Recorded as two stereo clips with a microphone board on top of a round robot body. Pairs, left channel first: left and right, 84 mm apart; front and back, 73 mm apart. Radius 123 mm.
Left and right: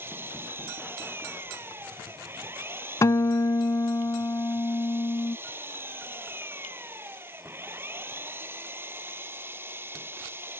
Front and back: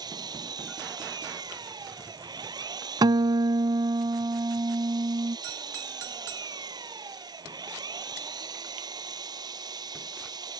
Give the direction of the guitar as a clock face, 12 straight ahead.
7 o'clock.